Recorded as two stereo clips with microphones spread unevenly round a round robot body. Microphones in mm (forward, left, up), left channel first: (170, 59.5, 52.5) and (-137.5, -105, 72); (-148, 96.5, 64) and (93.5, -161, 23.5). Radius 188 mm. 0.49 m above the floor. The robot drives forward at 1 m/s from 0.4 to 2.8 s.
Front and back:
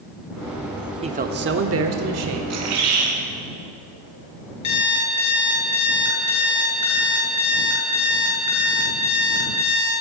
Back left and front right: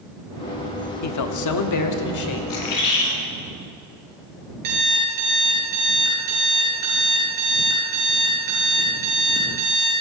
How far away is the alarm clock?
About 5.5 m.